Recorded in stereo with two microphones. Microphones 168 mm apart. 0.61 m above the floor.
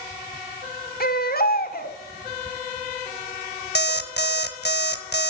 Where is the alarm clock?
80° left, 1.2 m.